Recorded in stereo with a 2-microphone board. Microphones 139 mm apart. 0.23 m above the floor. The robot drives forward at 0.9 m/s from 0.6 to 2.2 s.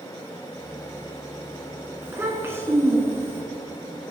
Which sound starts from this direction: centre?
A child speaking, at 2.0 s.